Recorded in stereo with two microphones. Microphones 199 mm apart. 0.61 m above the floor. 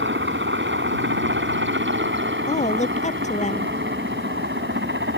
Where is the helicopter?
75° right (ahead or behind).